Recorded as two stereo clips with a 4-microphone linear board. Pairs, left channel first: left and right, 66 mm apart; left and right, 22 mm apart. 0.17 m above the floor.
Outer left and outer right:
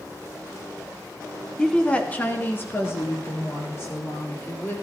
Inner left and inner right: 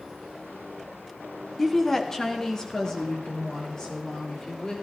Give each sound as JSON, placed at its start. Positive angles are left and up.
{"t": 1.6, "sound": "a woman speaking", "side_deg": 10, "distance_m": 1.4}